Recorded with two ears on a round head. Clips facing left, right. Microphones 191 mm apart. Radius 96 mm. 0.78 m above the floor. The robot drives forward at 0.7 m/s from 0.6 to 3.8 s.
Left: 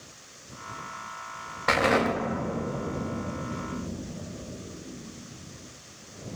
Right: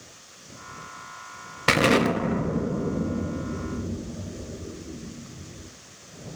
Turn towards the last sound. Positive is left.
turn(degrees=-25)  # may be behind; listen again after turning